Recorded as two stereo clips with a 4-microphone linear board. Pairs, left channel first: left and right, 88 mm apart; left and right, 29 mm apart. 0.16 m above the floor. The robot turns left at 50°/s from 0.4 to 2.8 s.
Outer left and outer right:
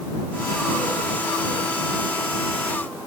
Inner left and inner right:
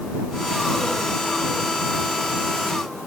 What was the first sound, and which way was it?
Only background noise.